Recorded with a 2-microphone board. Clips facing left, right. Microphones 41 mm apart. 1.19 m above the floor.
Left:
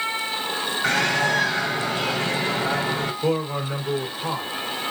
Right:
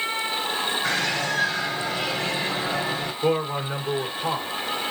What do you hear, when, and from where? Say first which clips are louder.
0.8 s a bird: left 8 dB; 80° left, 3.5 m
3.2 s a man speaking: right 3 dB; centre (ahead or behind), 1.1 m